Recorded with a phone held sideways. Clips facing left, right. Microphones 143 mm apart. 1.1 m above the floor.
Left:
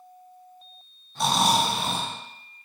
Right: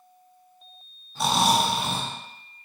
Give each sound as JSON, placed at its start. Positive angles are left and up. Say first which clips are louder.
{"t": 1.1, "sound": "snoring", "louder": "right 1 dB", "side_deg": -5, "distance_m": 1.6}